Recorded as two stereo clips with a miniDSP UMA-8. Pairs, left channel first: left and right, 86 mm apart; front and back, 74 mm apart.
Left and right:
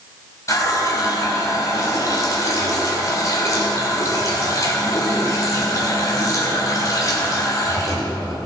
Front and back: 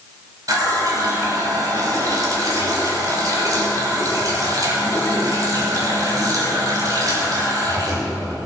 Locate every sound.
0.5 s a running tap: 140° left, 3.5 m